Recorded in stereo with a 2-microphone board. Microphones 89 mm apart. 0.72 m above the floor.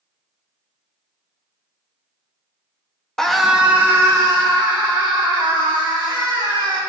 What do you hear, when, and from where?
3.2 s a scream: 10° left (ahead or behind), 0.7 m; by 6.8 s 70° right (ahead or behind), 2 m